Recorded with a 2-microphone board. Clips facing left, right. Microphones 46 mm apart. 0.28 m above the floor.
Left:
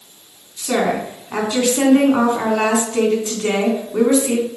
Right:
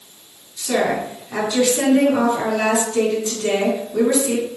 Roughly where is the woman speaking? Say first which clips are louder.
Left 1 dB; left.